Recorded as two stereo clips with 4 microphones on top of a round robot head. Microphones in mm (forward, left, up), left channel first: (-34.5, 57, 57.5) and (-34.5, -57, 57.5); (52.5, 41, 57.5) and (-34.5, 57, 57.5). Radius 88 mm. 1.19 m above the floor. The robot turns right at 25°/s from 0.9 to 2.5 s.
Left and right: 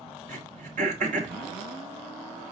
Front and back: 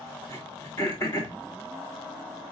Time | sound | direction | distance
0.3 | throat clearing | 75° right | 3 m